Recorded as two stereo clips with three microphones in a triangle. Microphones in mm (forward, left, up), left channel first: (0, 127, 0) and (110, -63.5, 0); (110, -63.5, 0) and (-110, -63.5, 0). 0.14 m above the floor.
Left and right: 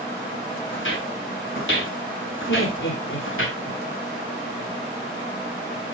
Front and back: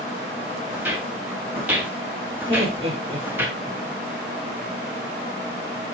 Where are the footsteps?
100° left, 7 m.